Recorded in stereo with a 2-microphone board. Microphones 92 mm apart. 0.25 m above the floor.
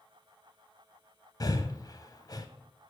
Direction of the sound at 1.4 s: 45° left (ahead or behind).